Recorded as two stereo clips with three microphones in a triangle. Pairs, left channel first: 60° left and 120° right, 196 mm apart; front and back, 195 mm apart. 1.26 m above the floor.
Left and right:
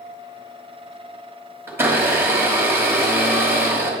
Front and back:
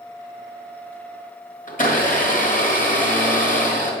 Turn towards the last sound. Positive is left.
turn(degrees=-45)